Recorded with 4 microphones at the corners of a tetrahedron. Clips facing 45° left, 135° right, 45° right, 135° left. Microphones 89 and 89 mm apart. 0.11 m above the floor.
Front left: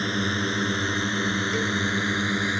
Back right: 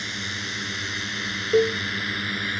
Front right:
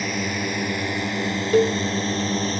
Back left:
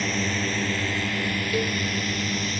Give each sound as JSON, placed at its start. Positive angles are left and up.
{"t": 0.0, "sound": "a drone", "azimuth_deg": 35}
{"t": 1.5, "sound": "a cowbell", "azimuth_deg": -90}